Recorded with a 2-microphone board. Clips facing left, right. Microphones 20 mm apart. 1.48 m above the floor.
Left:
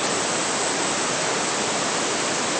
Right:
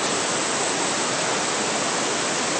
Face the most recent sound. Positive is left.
No sound to turn to.